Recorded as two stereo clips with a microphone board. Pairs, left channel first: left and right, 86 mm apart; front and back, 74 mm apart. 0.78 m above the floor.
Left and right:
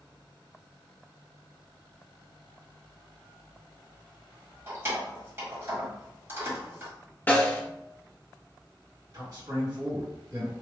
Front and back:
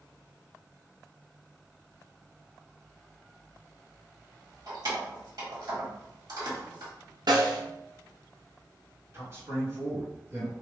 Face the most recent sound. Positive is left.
turn(degrees=-130)